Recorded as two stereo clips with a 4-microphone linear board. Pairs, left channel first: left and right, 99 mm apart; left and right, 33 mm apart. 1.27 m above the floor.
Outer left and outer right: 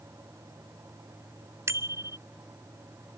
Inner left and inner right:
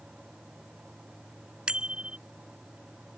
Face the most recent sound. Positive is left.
turn(degrees=-30)  # may be behind; listen again after turning